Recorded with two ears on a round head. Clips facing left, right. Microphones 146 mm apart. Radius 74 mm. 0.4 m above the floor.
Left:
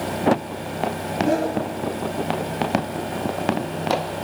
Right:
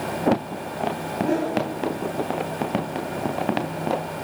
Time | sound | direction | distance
1.2 | a whoosh | 50° left (ahead or behind) | 3 m